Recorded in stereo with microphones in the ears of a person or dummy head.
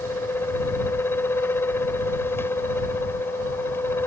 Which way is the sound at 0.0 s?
20° left (ahead or behind).